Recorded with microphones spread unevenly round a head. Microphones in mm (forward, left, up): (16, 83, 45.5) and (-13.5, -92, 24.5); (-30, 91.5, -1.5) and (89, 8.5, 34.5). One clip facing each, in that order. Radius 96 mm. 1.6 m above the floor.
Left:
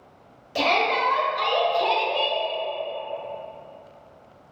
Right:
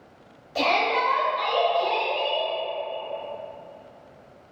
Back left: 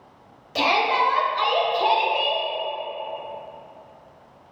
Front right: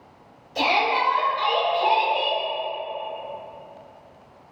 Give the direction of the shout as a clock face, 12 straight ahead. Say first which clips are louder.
Left 1 dB, back left 1 dB; 7 o'clock.